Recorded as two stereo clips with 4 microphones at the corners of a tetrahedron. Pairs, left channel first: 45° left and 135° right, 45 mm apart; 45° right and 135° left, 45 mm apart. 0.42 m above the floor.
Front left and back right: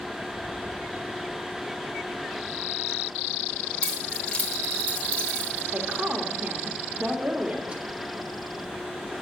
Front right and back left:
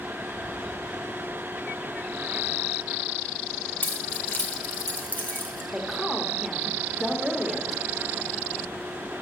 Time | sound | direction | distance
3.8 | keys jangling | 10° right | 1.2 m
5.7 | a woman speaking | 130° right | 1.2 m